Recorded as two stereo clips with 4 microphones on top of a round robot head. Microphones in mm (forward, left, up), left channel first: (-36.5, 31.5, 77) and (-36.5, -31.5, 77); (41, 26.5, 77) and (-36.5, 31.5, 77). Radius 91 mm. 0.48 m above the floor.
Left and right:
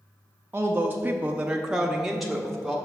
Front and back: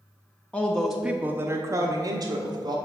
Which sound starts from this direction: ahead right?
A woman speaking, at 0.5 s.